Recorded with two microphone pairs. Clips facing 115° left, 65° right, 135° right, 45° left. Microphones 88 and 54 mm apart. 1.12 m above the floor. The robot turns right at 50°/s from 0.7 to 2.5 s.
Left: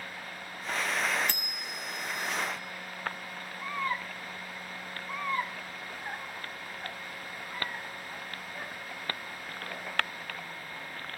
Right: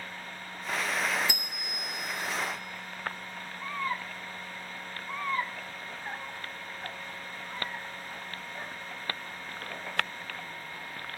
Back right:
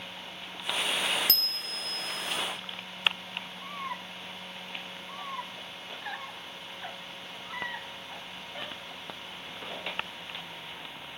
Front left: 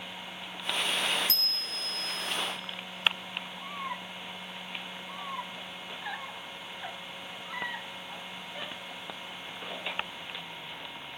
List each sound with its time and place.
1.3 s a bicycle bell: 145° right, 2.5 m; by 1.9 s 115° right, 2.5 m